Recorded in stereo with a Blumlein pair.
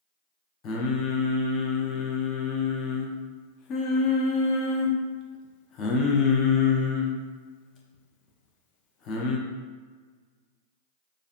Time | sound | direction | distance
0.6 | singing | 30° left | 0.7 m